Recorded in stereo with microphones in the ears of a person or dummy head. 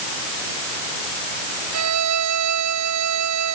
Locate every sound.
1.7 s a violin: 80° right